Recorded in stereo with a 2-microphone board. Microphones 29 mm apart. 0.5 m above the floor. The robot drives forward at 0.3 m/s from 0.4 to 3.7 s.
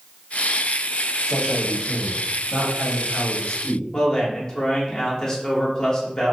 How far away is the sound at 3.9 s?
About 0.8 m.